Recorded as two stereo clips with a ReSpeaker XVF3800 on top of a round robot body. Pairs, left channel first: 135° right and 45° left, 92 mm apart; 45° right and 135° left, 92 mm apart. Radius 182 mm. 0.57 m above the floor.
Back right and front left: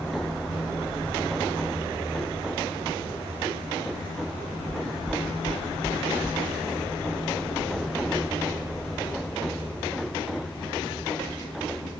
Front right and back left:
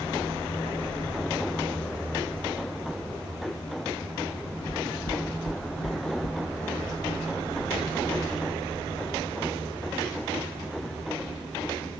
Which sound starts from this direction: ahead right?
Knocking, at 4.7 s.